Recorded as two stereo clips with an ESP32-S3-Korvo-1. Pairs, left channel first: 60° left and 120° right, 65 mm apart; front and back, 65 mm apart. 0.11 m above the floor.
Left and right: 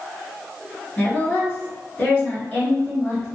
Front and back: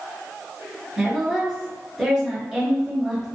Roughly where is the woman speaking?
Left.